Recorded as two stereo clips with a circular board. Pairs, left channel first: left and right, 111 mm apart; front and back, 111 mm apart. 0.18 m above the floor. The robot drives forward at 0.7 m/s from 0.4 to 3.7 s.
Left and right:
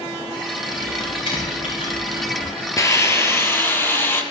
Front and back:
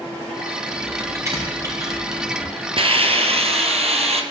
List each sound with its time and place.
0.7 s typing on a keyboard: 115° left, 7 m; by 2.5 s 125° left, 7.5 m
2.8 s a hiss: 150° left, 1.3 m; by 4.2 s 160° left, 1.8 m